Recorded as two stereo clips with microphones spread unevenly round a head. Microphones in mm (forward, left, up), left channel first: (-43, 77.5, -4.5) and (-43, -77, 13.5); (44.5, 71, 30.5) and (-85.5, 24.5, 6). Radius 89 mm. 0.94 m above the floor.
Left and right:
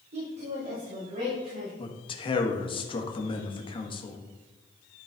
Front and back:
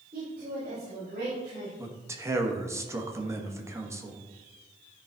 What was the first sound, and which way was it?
A woman speaking, 110° right.